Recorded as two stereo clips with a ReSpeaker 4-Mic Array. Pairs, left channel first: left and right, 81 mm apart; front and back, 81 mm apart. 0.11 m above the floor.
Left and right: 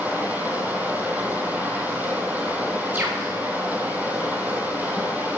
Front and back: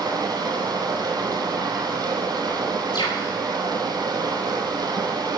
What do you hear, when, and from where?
0.0 s running water: 155° right, 2 m
2.9 s a bird: 20° right, 3 m